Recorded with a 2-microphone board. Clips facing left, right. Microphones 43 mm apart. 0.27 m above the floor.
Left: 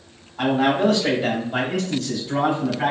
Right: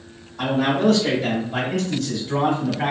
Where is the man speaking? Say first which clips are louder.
Left 1 dB; 25° left (ahead or behind), 1.6 m; by 2.9 s 5° right (ahead or behind), 2.5 m.